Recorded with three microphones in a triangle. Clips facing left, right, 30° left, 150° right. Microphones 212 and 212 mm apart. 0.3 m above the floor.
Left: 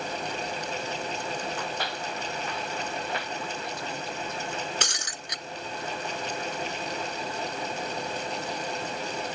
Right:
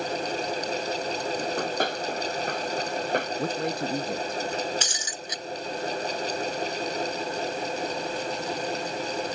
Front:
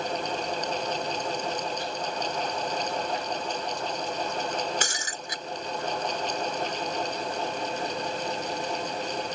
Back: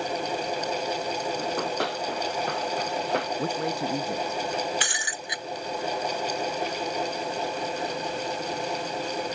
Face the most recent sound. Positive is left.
turn(degrees=75)